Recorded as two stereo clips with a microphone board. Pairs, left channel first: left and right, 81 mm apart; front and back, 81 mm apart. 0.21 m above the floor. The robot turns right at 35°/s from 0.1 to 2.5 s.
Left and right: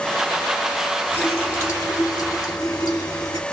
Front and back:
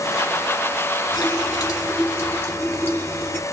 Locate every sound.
1.1 s a running tap: 20° left, 2.5 m; by 3.4 s 70° left, 2.5 m